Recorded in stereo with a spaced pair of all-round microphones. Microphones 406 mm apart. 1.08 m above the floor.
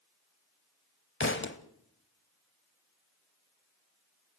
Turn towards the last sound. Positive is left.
turn(degrees=30)  # may be behind; listen again after turning